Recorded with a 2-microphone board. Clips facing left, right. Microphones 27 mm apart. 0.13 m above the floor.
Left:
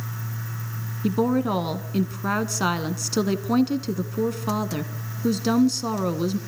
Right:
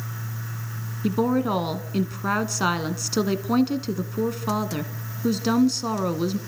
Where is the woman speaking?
5° right (ahead or behind), 1.0 m.